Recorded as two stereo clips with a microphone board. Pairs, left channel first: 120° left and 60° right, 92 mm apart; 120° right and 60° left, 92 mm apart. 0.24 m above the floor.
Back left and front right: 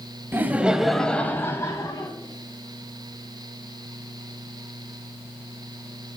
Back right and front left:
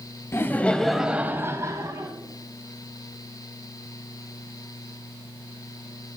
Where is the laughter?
95° right, 1.1 m; by 2.1 s 85° left, 1.5 m.